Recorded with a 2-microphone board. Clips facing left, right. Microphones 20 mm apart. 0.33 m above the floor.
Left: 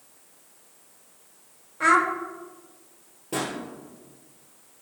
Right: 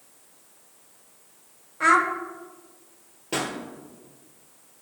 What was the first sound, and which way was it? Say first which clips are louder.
A child speaking: right 1 dB; centre (ahead or behind).